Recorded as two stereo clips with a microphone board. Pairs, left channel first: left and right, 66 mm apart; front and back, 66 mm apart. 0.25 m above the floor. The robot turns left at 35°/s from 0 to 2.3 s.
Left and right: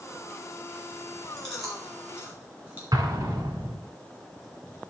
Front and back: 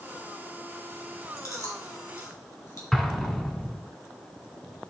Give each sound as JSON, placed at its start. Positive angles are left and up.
{"t": 1.4, "sound": "chewing", "azimuth_deg": 5, "distance_m": 3.0}
{"t": 2.9, "sound": "an explosion", "azimuth_deg": -85, "distance_m": 1.2}